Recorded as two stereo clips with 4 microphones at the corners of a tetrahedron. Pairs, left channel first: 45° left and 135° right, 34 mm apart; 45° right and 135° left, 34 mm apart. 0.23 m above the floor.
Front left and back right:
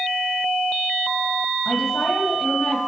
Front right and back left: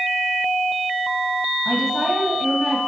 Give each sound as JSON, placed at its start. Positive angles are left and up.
{"t": 1.6, "sound": "a woman speaking", "azimuth_deg": 45, "distance_m": 1.3}